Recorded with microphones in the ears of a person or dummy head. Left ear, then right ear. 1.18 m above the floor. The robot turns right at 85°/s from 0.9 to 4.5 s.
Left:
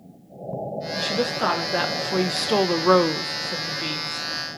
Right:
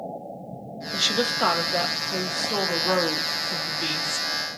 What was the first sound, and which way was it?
A woman speaking, 55° right.